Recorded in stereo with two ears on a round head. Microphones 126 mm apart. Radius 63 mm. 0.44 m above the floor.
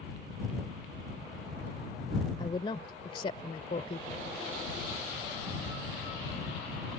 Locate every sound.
2.4 s a woman speaking: 35° left (ahead or behind); by 4.2 s 45° left (ahead or behind)